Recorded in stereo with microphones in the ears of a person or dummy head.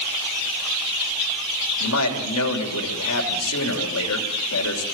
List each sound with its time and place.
1.8 s a man speaking: 90° left, 3.5 m